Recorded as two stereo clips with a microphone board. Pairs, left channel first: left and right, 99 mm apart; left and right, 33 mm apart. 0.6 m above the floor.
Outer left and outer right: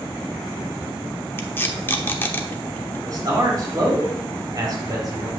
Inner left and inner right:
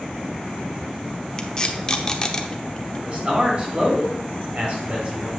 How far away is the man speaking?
About 3.5 m.